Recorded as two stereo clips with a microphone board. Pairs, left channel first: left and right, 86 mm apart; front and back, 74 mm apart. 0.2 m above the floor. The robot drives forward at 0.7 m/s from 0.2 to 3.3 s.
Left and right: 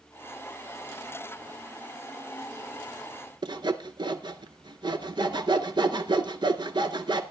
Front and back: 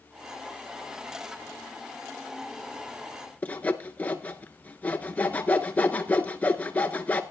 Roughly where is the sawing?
Right.